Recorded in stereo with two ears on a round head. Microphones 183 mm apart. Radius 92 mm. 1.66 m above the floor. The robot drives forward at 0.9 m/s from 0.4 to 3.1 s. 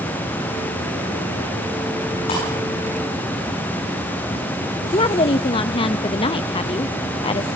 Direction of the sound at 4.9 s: 25° left (ahead or behind).